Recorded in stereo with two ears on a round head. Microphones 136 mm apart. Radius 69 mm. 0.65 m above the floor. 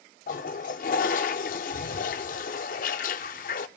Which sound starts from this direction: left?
A toilet flushing, at 0.3 s.